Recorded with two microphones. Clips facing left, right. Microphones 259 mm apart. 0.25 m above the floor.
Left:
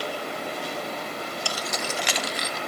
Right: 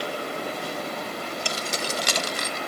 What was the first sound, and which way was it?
Keys jangling, 20° right (ahead or behind).